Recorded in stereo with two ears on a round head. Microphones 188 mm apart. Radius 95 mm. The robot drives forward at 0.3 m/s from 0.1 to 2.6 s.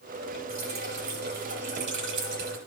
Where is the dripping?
45° right (ahead or behind), 1.8 m; by 2.6 s 60° right (ahead or behind), 1.4 m.